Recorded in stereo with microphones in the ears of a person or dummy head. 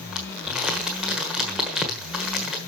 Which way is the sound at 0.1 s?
Centre (ahead or behind).